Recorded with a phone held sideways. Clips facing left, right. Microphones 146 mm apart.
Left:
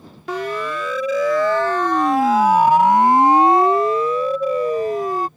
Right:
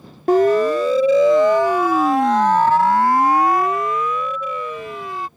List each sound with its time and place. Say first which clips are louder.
0.3 s a siren: right 11 dB; 50° right (ahead or behind); by 5.3 s 50° left (ahead or behind)